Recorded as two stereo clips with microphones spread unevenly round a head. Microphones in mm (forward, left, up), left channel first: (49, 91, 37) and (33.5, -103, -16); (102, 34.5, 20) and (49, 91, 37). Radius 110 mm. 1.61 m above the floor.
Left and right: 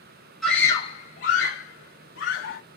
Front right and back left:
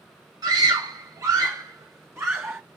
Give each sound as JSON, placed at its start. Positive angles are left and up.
{"t": 0.4, "sound": "a scream", "azimuth_deg": 165, "distance_m": 0.7}